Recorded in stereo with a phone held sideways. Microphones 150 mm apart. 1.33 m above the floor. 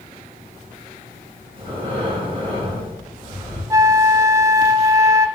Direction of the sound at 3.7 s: 20° right (ahead or behind).